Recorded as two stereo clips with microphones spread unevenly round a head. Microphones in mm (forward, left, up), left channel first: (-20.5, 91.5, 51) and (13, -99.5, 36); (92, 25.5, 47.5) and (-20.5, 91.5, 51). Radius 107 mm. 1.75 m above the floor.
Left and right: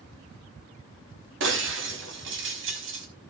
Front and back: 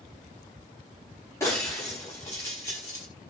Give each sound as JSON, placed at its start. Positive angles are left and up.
{"t": 1.4, "sound": "breaking glass", "azimuth_deg": -105, "distance_m": 5.0}